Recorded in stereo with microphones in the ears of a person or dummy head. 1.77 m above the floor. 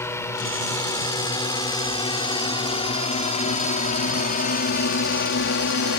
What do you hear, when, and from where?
0.0 s a drone: 15° left (ahead or behind); by 6.0 s 65° left (ahead or behind)